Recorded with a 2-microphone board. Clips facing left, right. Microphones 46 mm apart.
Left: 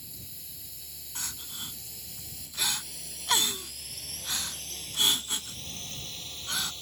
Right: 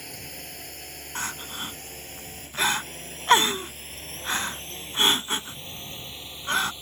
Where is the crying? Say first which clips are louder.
Right 9 dB; 45° right (ahead or behind).